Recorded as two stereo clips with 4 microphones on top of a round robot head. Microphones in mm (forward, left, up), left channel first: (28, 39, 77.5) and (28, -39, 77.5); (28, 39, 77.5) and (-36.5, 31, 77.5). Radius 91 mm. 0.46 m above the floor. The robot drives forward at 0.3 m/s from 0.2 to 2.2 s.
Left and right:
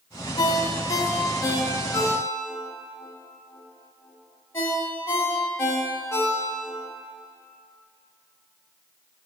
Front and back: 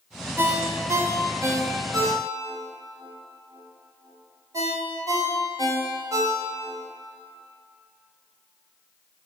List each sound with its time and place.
0.4 s a ringtone: 130° left, 0.7 m; by 6.8 s 150° left, 1.1 m